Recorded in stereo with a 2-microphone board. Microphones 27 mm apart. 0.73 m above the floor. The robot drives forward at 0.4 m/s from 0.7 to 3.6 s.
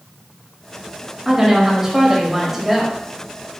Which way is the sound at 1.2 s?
15° right (ahead or behind).